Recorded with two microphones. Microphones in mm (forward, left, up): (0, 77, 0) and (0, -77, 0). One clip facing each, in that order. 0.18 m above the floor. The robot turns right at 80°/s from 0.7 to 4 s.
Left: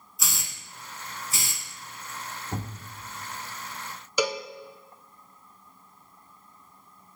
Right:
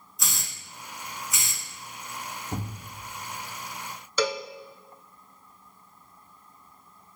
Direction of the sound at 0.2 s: Centre (ahead or behind).